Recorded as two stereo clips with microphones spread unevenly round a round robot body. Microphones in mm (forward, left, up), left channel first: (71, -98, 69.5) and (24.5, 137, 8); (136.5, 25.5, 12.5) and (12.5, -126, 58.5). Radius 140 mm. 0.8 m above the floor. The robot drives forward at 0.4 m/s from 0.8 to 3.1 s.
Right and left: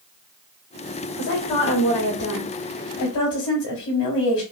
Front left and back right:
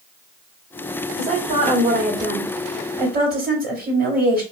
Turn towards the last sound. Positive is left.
turn(degrees=-85)